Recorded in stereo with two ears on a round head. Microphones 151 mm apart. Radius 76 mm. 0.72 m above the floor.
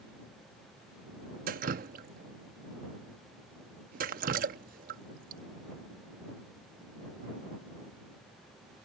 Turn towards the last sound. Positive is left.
turn(degrees=-55)  # may be behind; listen again after turning